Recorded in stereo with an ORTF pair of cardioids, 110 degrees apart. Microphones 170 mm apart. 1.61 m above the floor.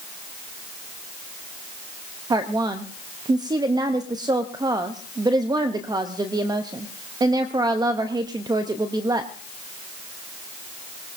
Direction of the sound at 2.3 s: 25° right.